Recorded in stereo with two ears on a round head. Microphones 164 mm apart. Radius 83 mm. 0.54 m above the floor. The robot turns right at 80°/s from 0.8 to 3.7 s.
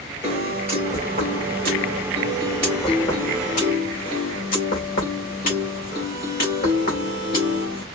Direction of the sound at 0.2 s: 165° right.